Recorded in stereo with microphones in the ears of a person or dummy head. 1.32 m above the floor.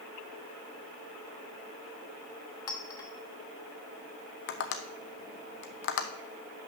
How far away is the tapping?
About 0.7 m.